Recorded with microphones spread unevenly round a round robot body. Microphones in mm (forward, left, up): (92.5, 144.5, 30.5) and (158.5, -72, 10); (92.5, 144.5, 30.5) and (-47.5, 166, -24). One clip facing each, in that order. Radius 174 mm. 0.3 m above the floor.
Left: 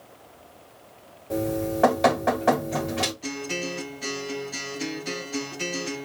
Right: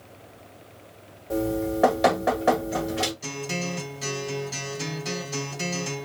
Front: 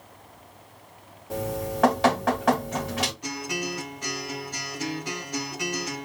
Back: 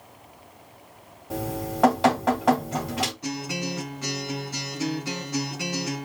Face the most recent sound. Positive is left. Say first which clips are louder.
# left 1 dB, back 1 dB
turn(degrees=-110)